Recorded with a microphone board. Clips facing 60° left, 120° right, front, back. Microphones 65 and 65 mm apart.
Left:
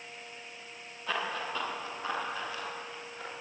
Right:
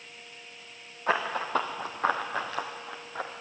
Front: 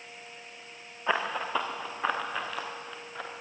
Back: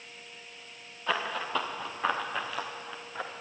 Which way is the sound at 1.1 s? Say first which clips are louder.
Right 6 dB, front 2 dB; 70° right.